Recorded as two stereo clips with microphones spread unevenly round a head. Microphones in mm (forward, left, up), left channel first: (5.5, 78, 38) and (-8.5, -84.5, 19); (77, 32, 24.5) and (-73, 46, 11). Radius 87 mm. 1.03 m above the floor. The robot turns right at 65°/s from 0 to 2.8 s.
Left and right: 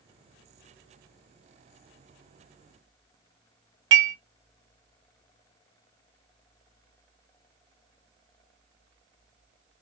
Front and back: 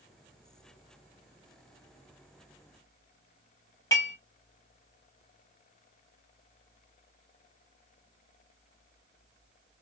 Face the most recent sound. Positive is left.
turn(degrees=-80)